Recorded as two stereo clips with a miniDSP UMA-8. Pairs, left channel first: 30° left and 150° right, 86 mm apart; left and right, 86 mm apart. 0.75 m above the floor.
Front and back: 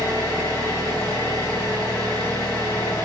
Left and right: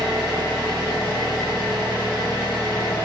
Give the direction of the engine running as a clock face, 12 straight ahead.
1 o'clock.